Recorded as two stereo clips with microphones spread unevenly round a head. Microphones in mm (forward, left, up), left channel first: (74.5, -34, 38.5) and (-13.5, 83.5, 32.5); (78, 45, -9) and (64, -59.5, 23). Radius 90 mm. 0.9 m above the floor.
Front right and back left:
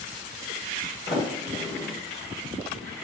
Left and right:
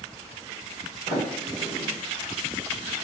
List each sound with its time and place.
1.1 s a sliding door: 95° right, 1.3 m